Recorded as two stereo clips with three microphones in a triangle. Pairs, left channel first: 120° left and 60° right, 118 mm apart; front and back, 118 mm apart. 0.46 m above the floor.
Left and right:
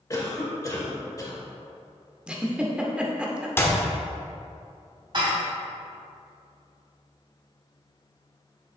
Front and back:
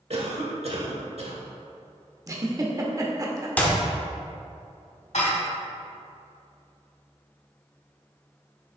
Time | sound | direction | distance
0.1 | a cough | 175° left | 1.3 m
2.3 | a giggle | 135° right | 0.8 m
3.6 | a clap | 65° left | 1.0 m
5.1 | dishes clattering | 15° right | 1.5 m